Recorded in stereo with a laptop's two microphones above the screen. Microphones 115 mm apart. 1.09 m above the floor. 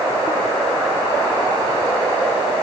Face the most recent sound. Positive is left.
No sound to turn to.